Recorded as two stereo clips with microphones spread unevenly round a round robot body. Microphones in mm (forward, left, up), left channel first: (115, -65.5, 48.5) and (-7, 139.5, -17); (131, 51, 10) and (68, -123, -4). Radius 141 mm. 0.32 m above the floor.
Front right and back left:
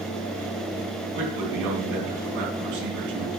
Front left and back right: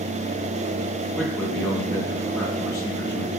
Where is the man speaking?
155° left, 3 m.